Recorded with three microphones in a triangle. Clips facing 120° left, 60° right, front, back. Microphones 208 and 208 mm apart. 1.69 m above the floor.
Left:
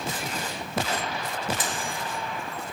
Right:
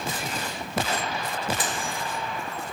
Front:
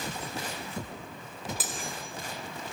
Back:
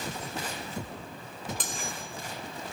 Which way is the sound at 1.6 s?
85° right.